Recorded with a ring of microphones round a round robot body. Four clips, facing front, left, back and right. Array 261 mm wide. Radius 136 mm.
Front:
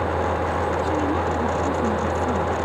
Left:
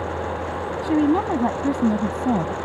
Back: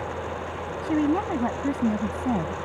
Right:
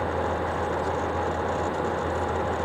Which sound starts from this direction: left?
A woman speaking, at 0.8 s.